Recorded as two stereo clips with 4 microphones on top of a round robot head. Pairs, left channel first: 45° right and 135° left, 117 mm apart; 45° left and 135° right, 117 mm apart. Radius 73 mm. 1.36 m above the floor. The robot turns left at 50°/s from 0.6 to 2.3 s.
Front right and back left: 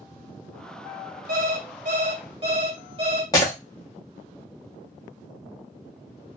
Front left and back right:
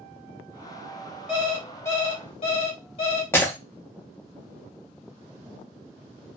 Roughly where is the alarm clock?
Behind left.